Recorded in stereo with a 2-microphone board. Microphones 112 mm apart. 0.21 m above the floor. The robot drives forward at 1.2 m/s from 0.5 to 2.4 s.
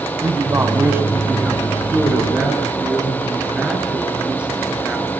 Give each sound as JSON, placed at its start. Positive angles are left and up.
{"t": 0.2, "sound": "a man speaking", "side_deg": -25, "distance_m": 1.2}